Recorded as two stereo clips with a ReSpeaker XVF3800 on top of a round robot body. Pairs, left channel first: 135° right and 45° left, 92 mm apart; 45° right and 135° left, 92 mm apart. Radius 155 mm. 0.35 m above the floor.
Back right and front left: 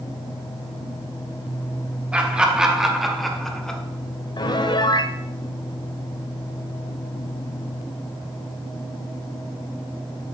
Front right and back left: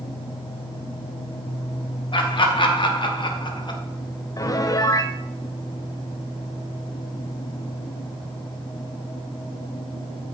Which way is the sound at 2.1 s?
30° right.